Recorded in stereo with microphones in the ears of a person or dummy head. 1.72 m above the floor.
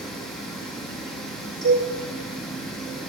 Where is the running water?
5° right (ahead or behind), 2.5 m.